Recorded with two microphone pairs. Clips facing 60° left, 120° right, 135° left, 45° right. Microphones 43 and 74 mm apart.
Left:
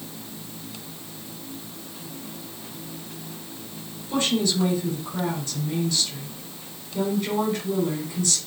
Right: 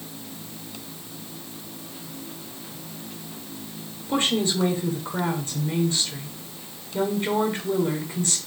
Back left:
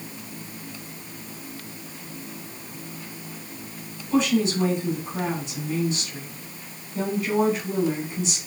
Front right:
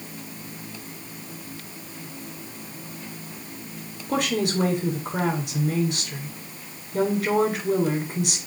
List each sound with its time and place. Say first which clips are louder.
4.1 s a woman speaking: even, back left 3 dB; 65° right, 4.5 m